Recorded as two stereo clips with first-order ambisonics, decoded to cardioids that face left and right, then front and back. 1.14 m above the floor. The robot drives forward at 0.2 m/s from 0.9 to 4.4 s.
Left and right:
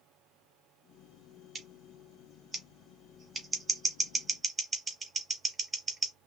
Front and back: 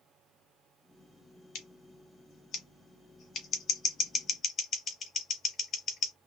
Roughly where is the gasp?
I don't hear a gasp.